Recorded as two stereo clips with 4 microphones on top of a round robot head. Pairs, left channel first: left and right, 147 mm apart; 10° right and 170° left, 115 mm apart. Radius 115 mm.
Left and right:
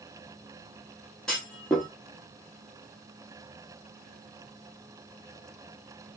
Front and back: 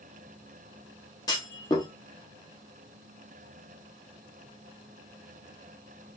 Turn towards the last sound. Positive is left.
turn(degrees=5)